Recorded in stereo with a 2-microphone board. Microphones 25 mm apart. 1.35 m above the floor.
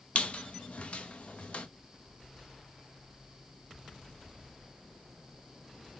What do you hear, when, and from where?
0.1 s a squeak: 55° left (ahead or behind), 0.7 m